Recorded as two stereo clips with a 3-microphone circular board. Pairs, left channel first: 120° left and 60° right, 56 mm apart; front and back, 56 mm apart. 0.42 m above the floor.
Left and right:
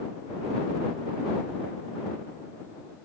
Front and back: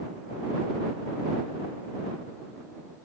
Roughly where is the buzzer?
I don't hear a buzzer.